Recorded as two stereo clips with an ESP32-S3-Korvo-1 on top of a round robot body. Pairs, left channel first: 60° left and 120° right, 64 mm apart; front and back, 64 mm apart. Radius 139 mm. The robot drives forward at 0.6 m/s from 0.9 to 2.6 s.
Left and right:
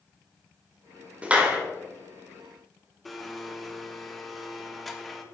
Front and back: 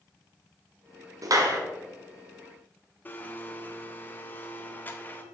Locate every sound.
1.2 s a clap: 170° left, 1.7 m; by 1.6 s 175° left, 1.9 m
3.0 s a blender: 30° right, 1.4 m